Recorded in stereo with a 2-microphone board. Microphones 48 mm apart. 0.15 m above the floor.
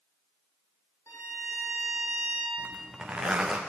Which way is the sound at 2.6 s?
15° right (ahead or behind).